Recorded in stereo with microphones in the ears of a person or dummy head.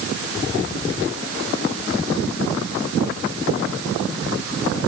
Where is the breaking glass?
I don't hear breaking glass.